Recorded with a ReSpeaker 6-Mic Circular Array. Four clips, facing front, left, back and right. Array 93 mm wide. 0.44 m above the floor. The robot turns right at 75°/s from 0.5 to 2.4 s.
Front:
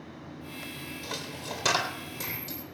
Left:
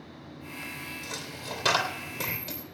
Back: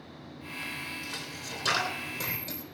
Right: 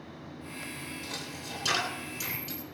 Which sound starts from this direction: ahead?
A dropped coin, at 1.0 s.